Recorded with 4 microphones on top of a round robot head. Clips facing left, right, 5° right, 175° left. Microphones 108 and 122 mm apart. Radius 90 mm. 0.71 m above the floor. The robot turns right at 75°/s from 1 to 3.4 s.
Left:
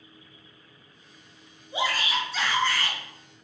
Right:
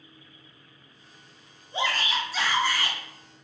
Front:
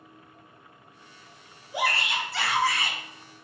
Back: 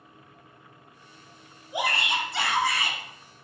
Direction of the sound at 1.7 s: 140° left.